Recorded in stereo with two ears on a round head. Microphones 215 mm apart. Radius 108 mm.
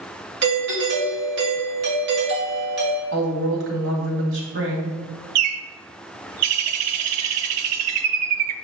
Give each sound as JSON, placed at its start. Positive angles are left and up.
{"t": 0.4, "sound": "a doorbell", "side_deg": -50, "distance_m": 1.9}
{"t": 3.1, "sound": "a woman speaking", "side_deg": -65, "distance_m": 2.0}
{"t": 5.3, "sound": "a bird", "side_deg": -70, "distance_m": 0.6}